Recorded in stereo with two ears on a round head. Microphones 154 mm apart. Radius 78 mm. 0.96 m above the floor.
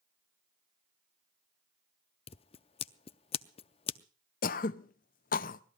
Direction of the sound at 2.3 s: 35° left (ahead or behind).